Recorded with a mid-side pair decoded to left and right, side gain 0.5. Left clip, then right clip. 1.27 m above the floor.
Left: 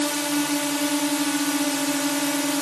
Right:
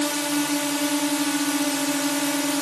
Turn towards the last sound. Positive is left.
turn(degrees=0)